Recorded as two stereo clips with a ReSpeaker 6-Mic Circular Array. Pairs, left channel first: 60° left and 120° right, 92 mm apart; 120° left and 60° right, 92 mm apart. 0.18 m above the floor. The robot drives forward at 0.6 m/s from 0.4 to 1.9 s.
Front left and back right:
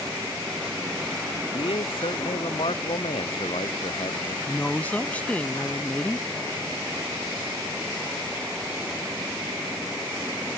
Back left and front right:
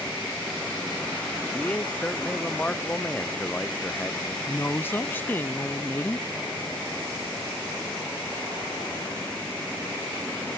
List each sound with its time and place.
1.5 s a man speaking: 45° left
4.5 s a woman speaking: 105° left